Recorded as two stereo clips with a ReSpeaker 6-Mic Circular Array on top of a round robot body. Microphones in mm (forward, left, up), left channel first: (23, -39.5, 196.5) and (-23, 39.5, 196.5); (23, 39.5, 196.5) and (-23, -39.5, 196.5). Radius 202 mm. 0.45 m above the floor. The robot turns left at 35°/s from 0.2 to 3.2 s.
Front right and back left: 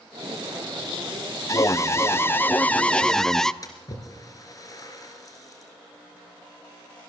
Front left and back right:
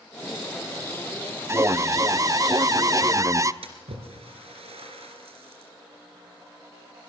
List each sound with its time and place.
1.5 s an alarm: 80° right, 0.9 m; by 3.5 s 140° right, 0.9 m
3.6 s a splash: 115° right, 2.5 m